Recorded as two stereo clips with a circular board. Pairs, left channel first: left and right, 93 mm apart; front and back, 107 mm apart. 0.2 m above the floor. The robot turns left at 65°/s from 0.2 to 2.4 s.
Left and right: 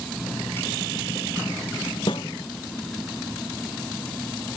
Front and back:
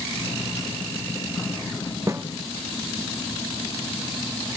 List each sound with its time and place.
2.1 s a snare drum: 120° left; by 2.2 s 105° left